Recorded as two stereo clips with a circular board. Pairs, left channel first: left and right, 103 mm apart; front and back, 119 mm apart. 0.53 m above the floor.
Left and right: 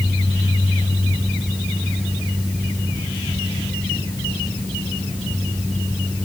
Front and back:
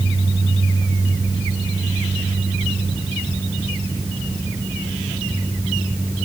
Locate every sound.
Only background noise.